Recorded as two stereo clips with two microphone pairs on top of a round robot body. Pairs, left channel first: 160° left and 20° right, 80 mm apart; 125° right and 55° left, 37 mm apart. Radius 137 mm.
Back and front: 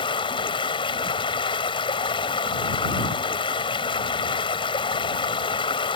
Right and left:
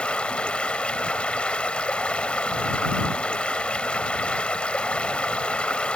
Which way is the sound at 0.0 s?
Straight behind.